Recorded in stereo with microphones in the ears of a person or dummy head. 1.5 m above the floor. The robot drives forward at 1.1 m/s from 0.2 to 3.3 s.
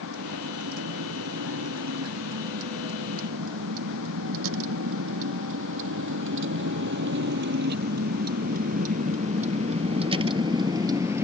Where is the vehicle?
85° right; by 11.2 s 15° right (ahead or behind).